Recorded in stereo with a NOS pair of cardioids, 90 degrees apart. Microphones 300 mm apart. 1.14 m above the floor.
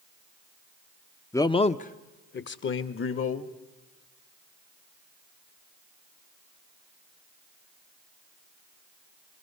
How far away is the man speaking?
About 0.6 m.